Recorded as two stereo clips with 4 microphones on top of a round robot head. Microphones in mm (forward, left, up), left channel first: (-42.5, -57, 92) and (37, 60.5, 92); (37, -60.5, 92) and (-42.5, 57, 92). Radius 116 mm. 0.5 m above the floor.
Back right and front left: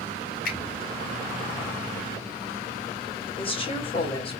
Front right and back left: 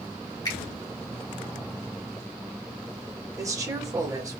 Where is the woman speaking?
170° right, 2 m.